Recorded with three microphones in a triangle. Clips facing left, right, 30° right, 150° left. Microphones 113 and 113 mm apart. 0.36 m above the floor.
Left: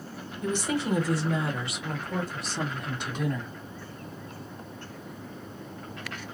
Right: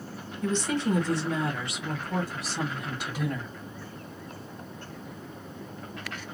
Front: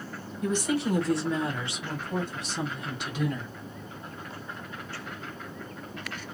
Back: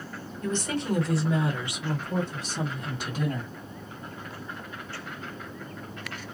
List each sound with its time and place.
0.4 s a woman speaking: 25° left, 1.3 m; by 3.5 s 170° right, 1.9 m